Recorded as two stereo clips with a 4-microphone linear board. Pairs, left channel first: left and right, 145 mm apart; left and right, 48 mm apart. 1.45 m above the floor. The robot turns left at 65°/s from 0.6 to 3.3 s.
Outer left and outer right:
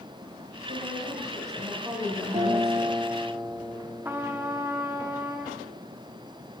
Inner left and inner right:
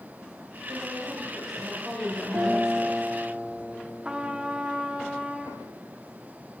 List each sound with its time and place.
0.7 s a woman speaking: 85° right, 7.5 m; by 3.0 s 120° left, 7.5 m
2.3 s a guitar: 110° right, 1.3 m; by 4.6 s 170° right, 1.3 m
4.0 s a trumpet: 15° right (ahead or behind), 0.9 m